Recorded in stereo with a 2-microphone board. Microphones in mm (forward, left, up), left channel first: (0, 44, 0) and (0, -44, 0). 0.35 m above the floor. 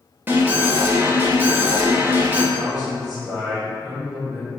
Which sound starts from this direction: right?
An alarm, at 0.3 s.